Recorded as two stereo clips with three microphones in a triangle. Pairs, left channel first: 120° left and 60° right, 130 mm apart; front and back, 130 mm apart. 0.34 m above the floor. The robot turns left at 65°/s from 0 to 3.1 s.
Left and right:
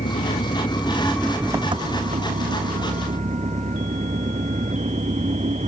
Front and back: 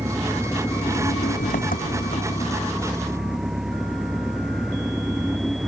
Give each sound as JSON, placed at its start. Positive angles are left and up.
{"t": 0.0, "sound": "an engine running", "azimuth_deg": 110}